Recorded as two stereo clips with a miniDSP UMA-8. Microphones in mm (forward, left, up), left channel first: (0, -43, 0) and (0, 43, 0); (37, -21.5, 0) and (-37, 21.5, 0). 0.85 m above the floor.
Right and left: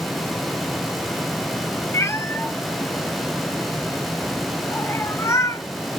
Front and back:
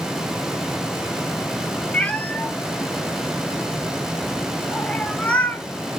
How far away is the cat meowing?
About 0.5 m.